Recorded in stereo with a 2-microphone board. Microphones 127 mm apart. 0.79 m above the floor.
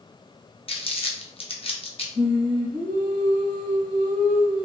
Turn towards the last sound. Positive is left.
turn(degrees=-80)